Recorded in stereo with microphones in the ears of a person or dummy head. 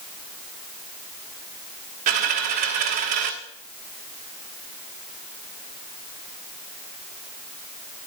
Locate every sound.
2.1 s a dropped coin: 40° right (ahead or behind), 1.1 m